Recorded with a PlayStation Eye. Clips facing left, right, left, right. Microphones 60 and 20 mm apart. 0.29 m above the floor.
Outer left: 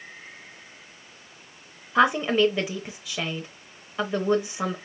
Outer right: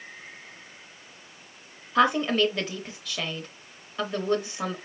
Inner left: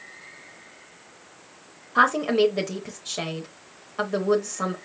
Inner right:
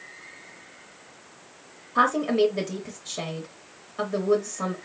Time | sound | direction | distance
1.9 | a woman speaking | 10° left (ahead or behind) | 0.9 m